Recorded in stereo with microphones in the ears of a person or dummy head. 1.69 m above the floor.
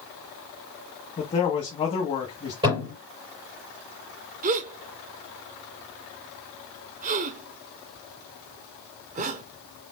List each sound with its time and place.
1.2 s a man speaking: 25° left (ahead or behind), 1.4 m
2.6 s a thud: 30° right (ahead or behind), 4 m
4.4 s a gasp: 35° right (ahead or behind), 0.8 m